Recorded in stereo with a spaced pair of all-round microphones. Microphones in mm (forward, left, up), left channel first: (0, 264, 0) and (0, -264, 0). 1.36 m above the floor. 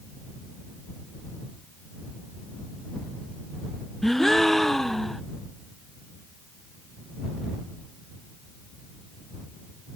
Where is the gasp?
Centre (ahead or behind).